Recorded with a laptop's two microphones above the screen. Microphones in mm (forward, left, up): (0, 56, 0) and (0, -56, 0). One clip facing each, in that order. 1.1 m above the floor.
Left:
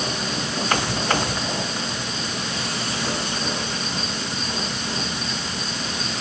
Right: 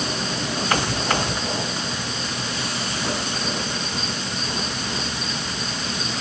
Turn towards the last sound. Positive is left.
No sound to turn to.